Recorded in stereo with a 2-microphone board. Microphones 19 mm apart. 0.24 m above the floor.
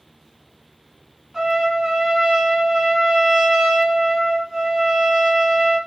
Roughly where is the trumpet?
Right.